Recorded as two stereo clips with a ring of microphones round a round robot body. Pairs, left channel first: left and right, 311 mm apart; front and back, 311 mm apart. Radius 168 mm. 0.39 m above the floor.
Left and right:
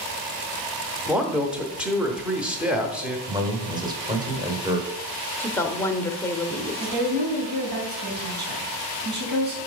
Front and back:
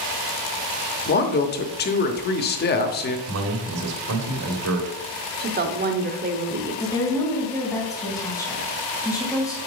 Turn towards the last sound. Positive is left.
turn(degrees=-80)